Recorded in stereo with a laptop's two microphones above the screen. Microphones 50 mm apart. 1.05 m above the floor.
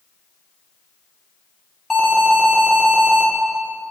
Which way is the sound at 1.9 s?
10° left (ahead or behind).